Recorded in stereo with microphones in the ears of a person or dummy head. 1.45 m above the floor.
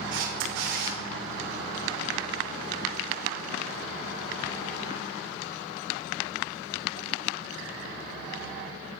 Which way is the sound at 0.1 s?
60° right (ahead or behind).